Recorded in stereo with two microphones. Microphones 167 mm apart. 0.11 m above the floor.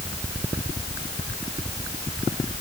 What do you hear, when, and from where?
Only background noise.